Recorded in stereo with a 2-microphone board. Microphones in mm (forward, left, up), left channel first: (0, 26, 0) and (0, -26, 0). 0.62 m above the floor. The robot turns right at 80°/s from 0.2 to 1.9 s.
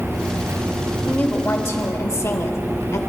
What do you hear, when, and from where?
1.1 s a woman speaking: 25° left, 1.8 m; by 3.0 s 95° left, 1.8 m